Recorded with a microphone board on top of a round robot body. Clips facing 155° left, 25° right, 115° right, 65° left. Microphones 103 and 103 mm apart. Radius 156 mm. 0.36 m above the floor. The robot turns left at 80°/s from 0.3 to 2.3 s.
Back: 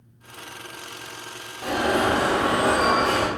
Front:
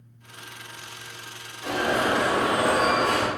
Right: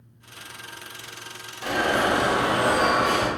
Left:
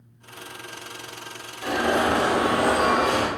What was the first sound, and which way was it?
An alarm, 160° left.